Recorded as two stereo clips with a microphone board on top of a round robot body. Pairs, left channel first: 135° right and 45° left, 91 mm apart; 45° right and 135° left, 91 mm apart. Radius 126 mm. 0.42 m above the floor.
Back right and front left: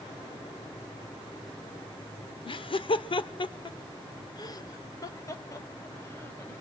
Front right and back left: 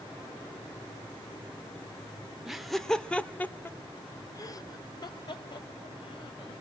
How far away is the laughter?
About 1.5 m.